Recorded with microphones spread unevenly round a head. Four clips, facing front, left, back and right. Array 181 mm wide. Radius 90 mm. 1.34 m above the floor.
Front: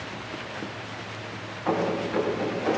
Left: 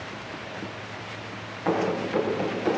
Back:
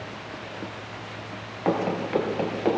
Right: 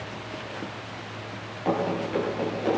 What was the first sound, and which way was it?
Running footsteps, 170° right.